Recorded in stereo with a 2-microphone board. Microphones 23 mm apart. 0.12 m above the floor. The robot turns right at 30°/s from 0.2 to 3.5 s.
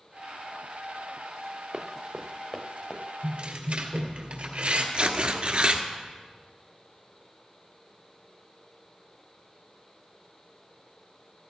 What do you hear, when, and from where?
1.7 s running footsteps: 15° right (ahead or behind), 0.8 m; by 3.0 s 35° left (ahead or behind), 1.7 m
3.2 s tearing paper: 50° right (ahead or behind), 2 m; by 4.8 s 55° right (ahead or behind), 2 m
4.9 s tearing paper: 45° right (ahead or behind), 1.2 m